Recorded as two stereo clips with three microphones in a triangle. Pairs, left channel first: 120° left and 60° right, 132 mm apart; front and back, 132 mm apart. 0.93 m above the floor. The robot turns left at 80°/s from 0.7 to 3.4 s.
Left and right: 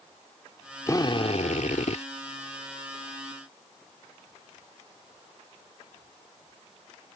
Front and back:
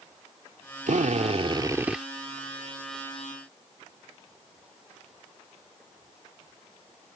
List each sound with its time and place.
0.9 s a drill: 175° right; by 2.0 s 90° left